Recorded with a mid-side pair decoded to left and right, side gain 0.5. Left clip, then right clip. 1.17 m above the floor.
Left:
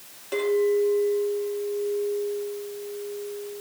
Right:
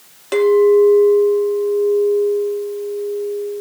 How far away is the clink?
About 1.5 m.